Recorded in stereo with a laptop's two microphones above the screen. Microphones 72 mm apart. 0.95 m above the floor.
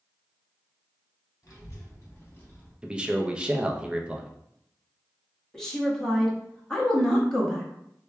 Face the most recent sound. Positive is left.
turn(degrees=10)  # may be behind; listen again after turning